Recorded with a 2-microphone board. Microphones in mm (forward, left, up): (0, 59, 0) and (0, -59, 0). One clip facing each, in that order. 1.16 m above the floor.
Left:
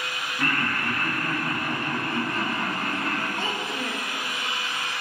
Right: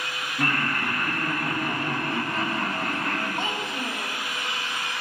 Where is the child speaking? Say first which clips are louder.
Even; 20° right (ahead or behind), 0.8 m.